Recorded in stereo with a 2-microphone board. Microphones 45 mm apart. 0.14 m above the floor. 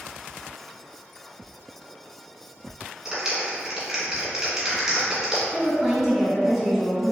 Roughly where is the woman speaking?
Centre.